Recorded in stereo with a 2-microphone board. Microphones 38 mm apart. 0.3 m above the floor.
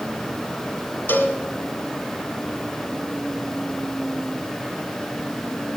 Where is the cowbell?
70° left (ahead or behind), 0.8 m.